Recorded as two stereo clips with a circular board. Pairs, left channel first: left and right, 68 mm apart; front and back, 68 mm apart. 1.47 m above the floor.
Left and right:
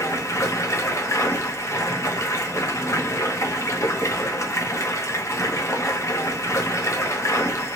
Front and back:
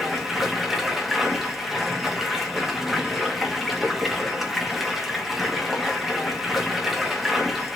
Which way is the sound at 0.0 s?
95° left.